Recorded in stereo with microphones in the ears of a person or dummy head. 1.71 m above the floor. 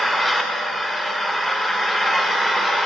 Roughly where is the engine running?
Centre.